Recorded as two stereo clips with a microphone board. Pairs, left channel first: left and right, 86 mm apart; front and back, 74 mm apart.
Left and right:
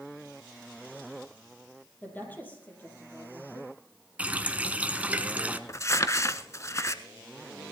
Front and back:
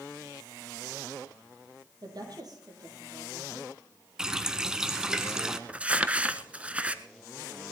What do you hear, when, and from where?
2.0 s a woman speaking: 160° left, 4 m
4.2 s a running tap: 120° right, 0.8 m
5.7 s crumpling: 120° left, 0.7 m